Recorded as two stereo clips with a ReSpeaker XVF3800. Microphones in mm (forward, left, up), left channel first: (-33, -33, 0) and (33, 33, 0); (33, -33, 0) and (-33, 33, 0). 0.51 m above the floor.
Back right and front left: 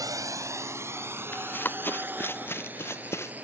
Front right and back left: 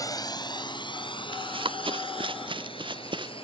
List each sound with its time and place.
0.0 s a drone: straight ahead; by 3.5 s 30° right
1.3 s running footsteps: 155° left; by 3.3 s 165° left